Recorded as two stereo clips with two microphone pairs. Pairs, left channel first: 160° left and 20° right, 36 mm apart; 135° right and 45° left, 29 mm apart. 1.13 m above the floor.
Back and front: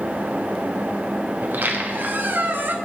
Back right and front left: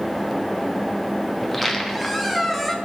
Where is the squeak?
45° right, 0.9 m.